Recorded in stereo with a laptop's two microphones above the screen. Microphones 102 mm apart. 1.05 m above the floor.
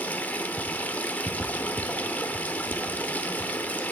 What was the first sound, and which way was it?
Running water, 15° left (ahead or behind).